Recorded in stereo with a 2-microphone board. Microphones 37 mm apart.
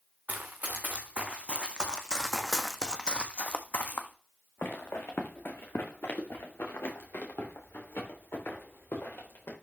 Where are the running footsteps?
50° right (ahead or behind), 2 m; by 9.5 s 85° left, 5 m.